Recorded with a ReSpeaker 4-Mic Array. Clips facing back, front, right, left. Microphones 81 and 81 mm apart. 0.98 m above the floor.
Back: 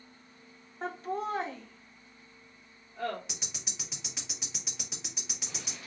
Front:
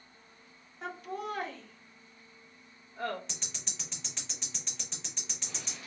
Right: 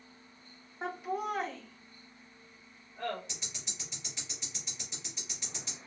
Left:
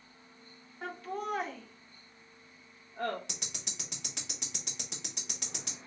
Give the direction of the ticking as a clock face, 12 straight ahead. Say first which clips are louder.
Back 1 dB, left 1 dB; 9 o'clock.